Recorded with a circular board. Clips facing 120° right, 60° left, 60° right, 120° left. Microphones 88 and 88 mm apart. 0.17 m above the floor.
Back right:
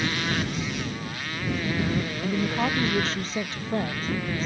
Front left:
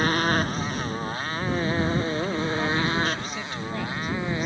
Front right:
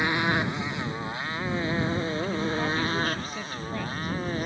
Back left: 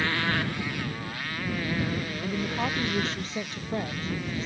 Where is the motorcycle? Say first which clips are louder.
Front left 5 dB, front right 2 dB; 10° left; by 4.5 s 5° right.